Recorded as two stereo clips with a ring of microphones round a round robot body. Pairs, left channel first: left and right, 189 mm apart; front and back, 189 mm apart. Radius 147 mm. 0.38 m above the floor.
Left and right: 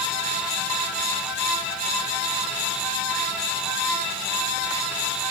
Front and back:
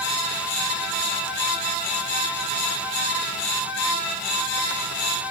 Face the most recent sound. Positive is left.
No sound to turn to.